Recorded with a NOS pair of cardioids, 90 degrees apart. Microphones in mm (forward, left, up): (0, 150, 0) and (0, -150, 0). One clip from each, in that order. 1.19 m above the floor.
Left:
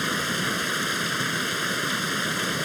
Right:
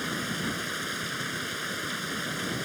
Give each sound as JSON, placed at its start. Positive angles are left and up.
{"t": 0.0, "sound": "running water", "azimuth_deg": 45}